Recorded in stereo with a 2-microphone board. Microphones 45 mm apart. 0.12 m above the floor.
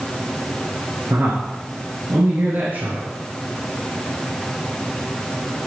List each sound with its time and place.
1.1 s a man speaking: 50° right (ahead or behind), 2 m